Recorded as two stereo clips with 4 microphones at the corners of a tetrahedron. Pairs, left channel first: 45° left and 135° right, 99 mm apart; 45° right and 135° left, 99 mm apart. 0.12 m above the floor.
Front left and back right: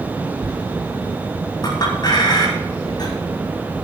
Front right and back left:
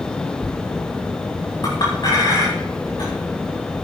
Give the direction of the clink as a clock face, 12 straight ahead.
12 o'clock.